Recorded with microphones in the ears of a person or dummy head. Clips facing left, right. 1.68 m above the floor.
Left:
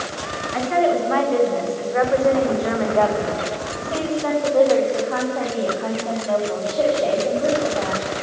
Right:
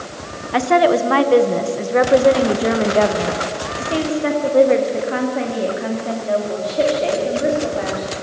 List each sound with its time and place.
0.5 s a woman speaking: 75° right (ahead or behind), 1.3 m; by 8.1 s 20° right (ahead or behind), 6 m